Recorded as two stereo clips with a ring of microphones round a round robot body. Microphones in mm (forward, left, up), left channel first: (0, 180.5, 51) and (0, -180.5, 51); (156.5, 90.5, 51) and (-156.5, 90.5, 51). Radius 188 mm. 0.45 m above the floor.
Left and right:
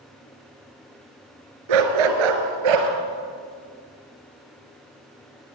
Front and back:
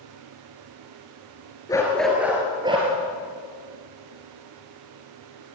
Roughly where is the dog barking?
Right.